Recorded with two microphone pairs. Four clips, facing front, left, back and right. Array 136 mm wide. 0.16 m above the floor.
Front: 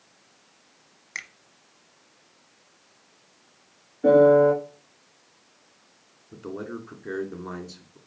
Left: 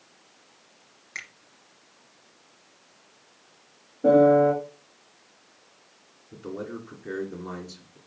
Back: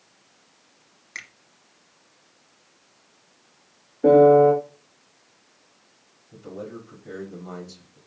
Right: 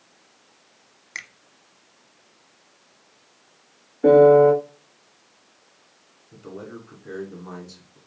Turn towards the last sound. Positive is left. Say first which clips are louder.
# left 3 dB, front 2 dB
turn(degrees=10)